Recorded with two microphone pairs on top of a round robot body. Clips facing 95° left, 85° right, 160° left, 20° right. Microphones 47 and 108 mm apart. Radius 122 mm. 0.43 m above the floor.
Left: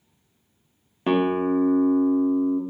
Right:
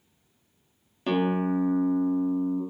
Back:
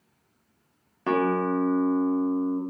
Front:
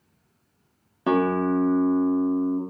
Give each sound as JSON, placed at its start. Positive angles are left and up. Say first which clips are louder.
{"t": 1.1, "sound": "a guitar", "louder": "left 4 dB, front 2 dB", "azimuth_deg": 50, "distance_m": 0.9}